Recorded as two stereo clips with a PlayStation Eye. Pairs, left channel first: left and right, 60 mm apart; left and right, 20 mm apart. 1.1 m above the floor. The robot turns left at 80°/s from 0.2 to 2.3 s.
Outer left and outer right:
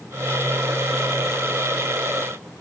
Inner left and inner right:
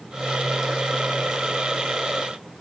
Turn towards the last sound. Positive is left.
No sound to turn to.